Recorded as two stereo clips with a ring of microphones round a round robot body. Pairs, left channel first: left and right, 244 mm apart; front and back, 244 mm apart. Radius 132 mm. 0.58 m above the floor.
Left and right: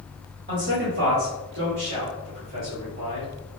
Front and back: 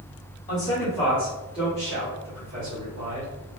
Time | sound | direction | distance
0.5 | a man speaking | 60° right | 1.1 m